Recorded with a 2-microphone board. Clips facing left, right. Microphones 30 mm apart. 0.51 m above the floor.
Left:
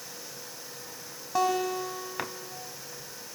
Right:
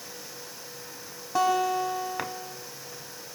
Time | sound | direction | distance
1.4 | a guitar | centre (ahead or behind) | 3 m